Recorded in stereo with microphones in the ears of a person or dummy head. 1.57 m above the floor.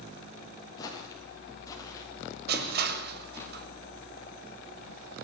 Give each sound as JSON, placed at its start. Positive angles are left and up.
{"t": 0.8, "sound": "footsteps", "side_deg": 20, "distance_m": 8.5}
{"t": 2.5, "sound": "crushing", "side_deg": -55, "distance_m": 6.0}